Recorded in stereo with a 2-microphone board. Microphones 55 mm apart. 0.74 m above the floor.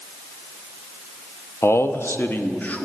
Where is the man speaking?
50° left (ahead or behind), 0.6 m; by 2.9 s 25° left (ahead or behind), 0.9 m.